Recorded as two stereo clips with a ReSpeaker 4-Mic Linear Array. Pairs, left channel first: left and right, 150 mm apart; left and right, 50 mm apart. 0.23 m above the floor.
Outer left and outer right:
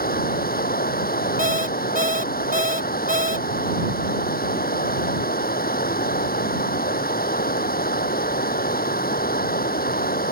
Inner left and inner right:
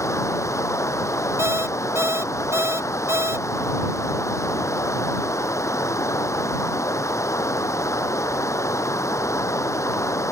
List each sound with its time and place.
0.0 s running water: 85° left
1.4 s an alarm clock: 65° right (ahead or behind)